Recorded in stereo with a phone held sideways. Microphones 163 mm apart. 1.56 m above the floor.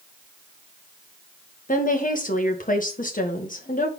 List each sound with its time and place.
1.7 s a woman speaking: 55° left (ahead or behind), 1.5 m